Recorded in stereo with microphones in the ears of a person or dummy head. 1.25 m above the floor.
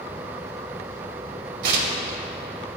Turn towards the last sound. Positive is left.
turn(degrees=-55)  # may be behind; listen again after turning